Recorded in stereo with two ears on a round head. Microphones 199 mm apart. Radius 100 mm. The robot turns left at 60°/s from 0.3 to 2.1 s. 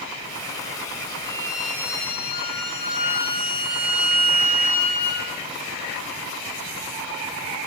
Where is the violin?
155° right, 5.5 m; by 5.3 s 155° left, 5.5 m.